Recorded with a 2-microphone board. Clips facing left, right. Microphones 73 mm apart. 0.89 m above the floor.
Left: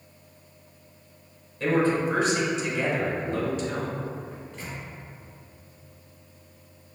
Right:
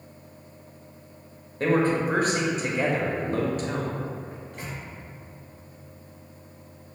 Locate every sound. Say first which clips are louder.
1.6 s a man speaking: right 1 dB; 45° right (ahead or behind), 0.8 m
4.3 s a microwave: right 1 dB; 55° right (ahead or behind), 1.0 m